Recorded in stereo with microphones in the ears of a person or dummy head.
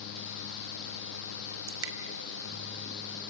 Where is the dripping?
75° right (ahead or behind), 3 m.